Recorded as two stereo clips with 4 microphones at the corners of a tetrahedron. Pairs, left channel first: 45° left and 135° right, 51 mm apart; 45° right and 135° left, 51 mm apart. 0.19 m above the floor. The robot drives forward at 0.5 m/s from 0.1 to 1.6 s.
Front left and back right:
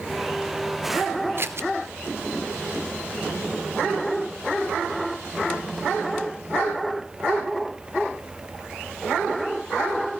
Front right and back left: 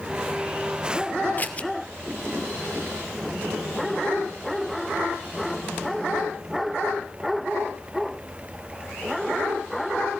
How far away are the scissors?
About 0.8 m.